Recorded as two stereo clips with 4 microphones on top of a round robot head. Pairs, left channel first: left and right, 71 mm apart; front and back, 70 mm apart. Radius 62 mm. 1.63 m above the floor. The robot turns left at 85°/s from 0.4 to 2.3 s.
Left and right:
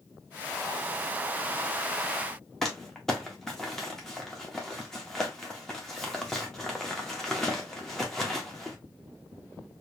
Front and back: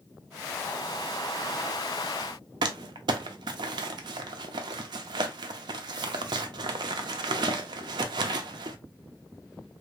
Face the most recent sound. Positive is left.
turn(degrees=175)